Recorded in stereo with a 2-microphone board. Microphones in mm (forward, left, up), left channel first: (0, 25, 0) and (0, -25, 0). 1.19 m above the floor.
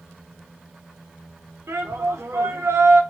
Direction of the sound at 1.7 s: 75° right (ahead or behind).